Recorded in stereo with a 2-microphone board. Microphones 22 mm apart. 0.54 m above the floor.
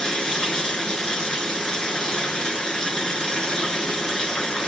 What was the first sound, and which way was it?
Running water, 35° left (ahead or behind).